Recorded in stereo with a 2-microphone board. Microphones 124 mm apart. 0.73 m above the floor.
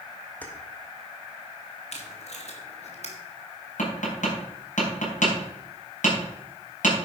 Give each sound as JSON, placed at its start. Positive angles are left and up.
{"t": 0.4, "sound": "keys jangling", "side_deg": 10, "distance_m": 1.8}
{"t": 1.9, "sound": "tape being pulled", "side_deg": 60, "distance_m": 1.9}
{"t": 3.8, "sound": "tapping", "side_deg": 80, "distance_m": 5.5}